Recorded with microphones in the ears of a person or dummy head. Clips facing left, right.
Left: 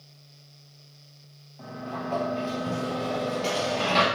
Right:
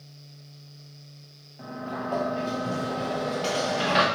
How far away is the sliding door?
About 0.7 m.